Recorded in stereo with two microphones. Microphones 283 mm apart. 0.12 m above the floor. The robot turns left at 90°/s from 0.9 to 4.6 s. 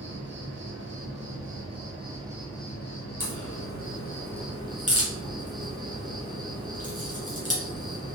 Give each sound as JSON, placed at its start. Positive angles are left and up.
{"t": 0.0, "sound": "an insect", "azimuth_deg": -45, "distance_m": 1.1}
{"t": 3.2, "sound": "a crack", "side_deg": 30, "distance_m": 1.8}